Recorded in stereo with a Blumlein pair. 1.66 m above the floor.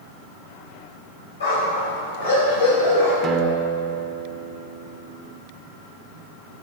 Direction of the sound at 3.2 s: 25° right.